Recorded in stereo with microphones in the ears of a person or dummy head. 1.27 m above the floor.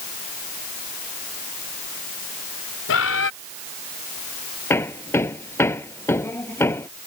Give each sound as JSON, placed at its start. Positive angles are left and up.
{"t": 2.9, "sound": "a bird", "side_deg": 70}
{"t": 4.7, "sound": "hammering", "side_deg": 15}